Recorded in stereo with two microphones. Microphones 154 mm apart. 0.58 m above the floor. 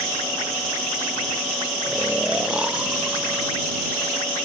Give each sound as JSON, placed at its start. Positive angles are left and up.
{"t": 1.8, "sound": "snoring", "side_deg": -5}